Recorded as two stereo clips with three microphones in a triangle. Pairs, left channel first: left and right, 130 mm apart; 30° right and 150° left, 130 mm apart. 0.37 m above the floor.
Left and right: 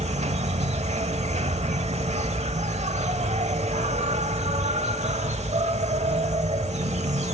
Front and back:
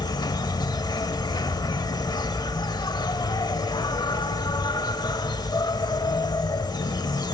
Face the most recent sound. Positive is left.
turn(degrees=-80)